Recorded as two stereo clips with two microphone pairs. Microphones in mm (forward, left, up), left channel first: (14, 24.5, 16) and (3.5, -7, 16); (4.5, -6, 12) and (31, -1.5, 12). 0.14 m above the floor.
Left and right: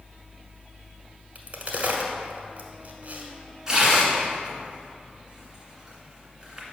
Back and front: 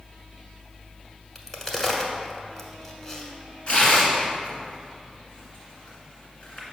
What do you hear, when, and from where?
1.4 s a crack: 110° right, 1.0 m
3.7 s tearing paper: straight behind, 1.8 m